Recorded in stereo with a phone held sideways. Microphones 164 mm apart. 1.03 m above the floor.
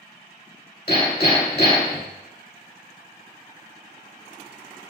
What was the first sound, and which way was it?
Hammering, 70° left (ahead or behind).